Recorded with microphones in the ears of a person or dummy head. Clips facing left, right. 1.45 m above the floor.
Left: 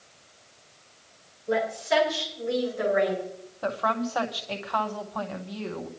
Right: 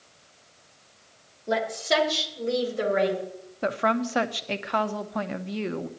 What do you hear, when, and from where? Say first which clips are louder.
1.5 s a woman speaking: even; 60° right (ahead or behind), 4.5 m; by 3.2 s 50° right (ahead or behind), 6.5 m
3.6 s a woman speaking: right 3 dB; 30° right (ahead or behind), 0.9 m